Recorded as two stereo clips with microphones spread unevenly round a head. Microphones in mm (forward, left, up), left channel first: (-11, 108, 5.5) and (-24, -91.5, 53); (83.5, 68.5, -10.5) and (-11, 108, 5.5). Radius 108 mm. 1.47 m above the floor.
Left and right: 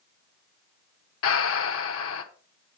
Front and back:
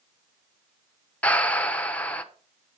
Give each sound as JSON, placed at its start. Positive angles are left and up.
{"t": 1.2, "sound": "breathing", "azimuth_deg": 55, "distance_m": 0.9}